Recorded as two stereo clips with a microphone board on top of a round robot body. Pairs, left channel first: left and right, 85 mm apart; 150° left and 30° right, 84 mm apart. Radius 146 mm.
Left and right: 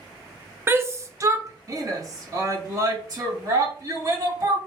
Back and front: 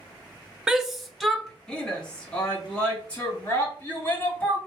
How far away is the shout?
About 0.9 m.